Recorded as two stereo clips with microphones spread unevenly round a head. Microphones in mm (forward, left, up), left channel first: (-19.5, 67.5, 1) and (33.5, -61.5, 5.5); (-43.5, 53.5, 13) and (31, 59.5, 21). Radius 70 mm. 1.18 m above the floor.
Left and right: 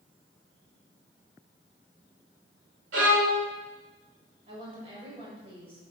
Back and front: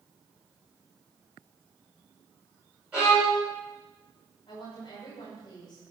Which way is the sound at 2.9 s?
75° right.